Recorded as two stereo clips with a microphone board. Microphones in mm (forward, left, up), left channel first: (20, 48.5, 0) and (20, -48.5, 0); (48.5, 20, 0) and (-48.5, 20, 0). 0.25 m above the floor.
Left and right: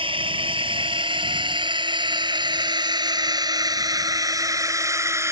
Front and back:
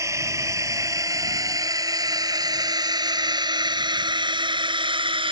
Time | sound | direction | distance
0.0 | a drone | 120° right | ?